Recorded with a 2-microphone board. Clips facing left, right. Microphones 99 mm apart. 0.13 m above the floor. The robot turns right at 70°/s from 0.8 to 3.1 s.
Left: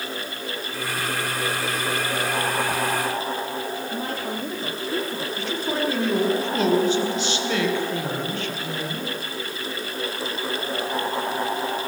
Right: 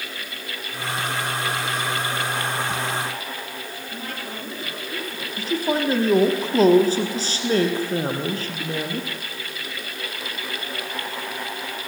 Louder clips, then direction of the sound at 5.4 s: Right 5 dB; 35° right (ahead or behind).